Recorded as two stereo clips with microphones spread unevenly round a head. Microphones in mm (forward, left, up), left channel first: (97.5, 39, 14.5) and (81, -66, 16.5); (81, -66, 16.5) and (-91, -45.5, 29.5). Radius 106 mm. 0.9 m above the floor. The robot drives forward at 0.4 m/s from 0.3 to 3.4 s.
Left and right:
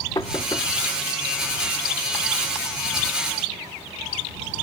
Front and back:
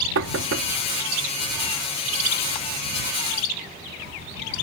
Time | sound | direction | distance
0.1 | knocking | 155° left | ?